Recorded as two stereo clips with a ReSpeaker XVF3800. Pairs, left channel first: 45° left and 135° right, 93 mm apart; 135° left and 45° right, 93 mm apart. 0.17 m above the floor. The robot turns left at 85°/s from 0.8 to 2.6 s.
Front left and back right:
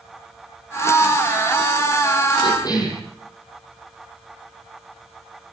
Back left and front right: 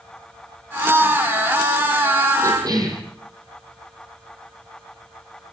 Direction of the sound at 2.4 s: 15° left.